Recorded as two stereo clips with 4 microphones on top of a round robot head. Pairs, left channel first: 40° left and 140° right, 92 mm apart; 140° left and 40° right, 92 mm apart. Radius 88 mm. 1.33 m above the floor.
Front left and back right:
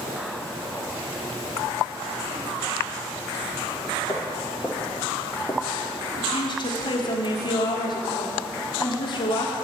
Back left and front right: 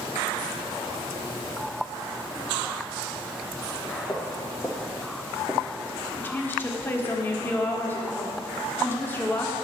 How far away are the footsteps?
About 1.4 m.